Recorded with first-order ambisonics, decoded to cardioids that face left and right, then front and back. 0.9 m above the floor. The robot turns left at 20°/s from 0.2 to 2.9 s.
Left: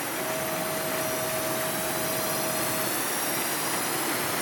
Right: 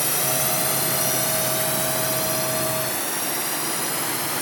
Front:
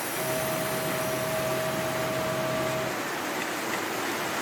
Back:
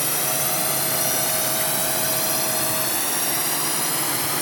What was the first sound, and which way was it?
A drone, 135° right.